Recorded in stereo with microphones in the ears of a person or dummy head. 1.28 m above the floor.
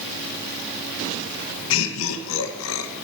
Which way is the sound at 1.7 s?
70° left (ahead or behind).